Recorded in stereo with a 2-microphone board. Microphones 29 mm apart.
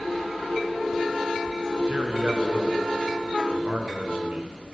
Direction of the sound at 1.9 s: 60° right (ahead or behind).